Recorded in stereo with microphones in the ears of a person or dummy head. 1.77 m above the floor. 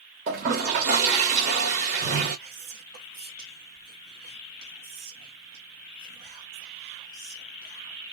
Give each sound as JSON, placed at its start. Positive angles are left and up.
{"t": 0.3, "sound": "a toilet flushing", "side_deg": -35, "distance_m": 1.3}
{"t": 2.4, "sound": "whispering", "side_deg": -45, "distance_m": 1.2}